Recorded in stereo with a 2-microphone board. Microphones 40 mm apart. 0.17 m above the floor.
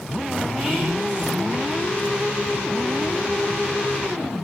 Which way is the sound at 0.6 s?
15° left (ahead or behind).